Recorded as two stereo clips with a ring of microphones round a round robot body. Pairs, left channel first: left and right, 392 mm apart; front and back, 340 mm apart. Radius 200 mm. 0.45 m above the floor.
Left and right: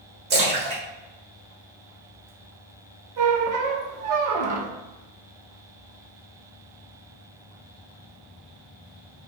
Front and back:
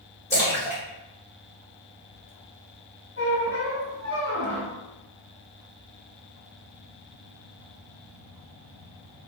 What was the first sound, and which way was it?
A splash, 70° right.